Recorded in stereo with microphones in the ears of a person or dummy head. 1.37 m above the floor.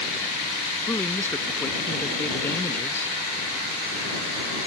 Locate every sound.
0.9 s a man speaking: 10° left (ahead or behind)